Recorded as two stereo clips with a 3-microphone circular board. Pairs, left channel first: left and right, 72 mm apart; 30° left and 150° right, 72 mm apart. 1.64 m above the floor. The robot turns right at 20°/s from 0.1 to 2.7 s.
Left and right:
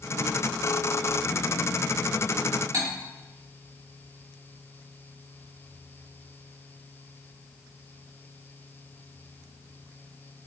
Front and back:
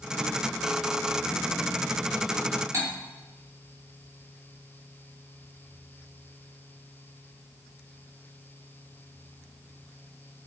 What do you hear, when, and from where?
2.7 s cutlery clinking: 115° right, 2 m